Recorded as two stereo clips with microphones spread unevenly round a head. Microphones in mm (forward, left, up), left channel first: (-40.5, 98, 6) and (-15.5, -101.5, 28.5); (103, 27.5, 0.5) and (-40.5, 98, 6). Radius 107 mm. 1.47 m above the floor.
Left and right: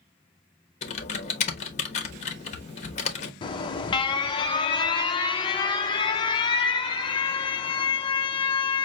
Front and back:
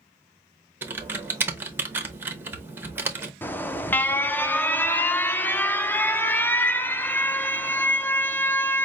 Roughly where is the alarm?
Ahead left.